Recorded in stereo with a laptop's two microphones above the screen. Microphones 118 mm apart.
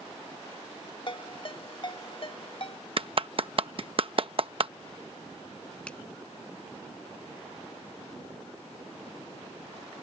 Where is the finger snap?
10° left (ahead or behind).